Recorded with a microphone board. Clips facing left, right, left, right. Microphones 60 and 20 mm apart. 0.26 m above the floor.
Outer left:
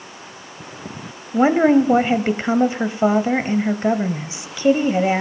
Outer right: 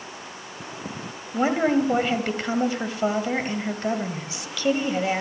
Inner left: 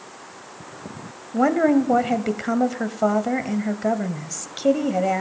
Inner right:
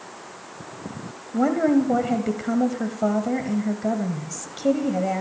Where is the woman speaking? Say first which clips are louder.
Outer left 7 dB, inner left 2 dB; 25° left (ahead or behind), 1.0 m.